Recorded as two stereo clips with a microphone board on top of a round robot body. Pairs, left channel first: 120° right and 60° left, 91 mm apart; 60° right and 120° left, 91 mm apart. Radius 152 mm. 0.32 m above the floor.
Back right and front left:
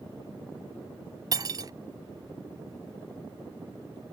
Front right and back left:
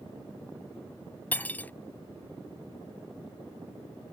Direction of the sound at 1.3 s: 15° left.